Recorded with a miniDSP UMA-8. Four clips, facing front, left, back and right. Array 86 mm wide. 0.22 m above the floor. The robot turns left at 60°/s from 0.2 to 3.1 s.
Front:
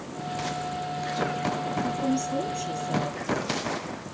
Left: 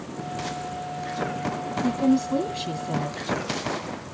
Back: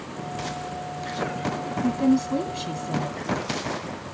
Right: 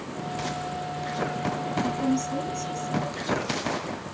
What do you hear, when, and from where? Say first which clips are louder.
1.8 s a woman speaking: left 7 dB, back 9 dB; 165° left, 1.5 m; by 3.2 s 85° left, 1.5 m